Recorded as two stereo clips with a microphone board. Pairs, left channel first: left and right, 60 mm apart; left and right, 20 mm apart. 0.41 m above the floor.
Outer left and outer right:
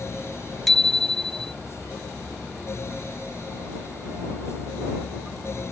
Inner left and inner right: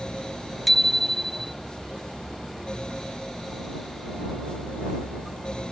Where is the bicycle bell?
5° left (ahead or behind).